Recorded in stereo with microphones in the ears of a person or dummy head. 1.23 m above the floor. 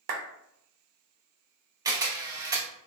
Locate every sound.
0.1 s a clap: 50° right (ahead or behind), 0.5 m
1.9 s a camera shutter: 20° right (ahead or behind), 0.6 m